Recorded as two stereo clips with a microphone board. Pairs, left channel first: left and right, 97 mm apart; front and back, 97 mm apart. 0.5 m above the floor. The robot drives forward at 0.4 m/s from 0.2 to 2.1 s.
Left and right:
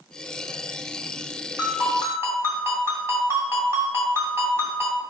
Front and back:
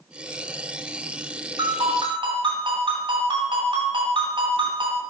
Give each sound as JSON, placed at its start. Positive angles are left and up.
{"t": 1.6, "sound": "a ringtone", "azimuth_deg": -150, "distance_m": 3.0}